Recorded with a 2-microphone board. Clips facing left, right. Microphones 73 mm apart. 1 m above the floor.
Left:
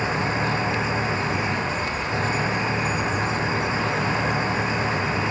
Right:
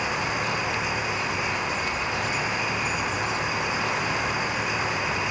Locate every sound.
0.0 s an engine running: 30° left (ahead or behind)